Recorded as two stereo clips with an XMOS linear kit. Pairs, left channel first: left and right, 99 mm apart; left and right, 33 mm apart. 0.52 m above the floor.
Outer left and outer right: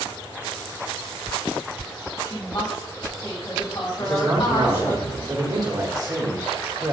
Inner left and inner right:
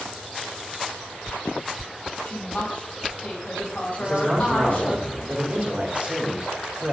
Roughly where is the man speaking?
Right.